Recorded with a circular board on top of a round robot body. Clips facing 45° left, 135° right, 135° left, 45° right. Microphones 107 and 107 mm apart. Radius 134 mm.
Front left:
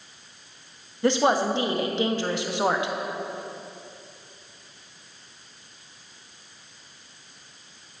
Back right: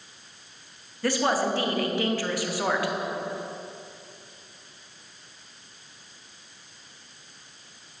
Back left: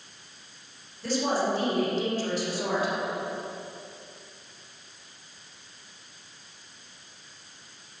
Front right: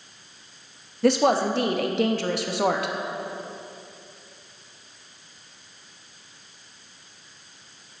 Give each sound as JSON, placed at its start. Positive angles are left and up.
{"t": 1.0, "sound": "a woman speaking", "azimuth_deg": -25, "distance_m": 1.2}